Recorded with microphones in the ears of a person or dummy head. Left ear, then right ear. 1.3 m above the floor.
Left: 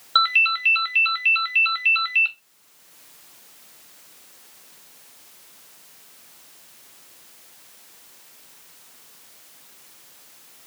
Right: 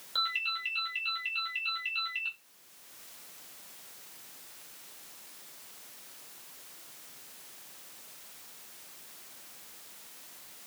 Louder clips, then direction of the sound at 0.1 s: Left 14 dB; 40° left (ahead or behind).